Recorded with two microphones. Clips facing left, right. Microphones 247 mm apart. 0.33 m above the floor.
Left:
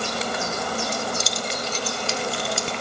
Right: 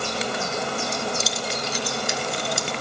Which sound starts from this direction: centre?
Keys jangling, at 0.9 s.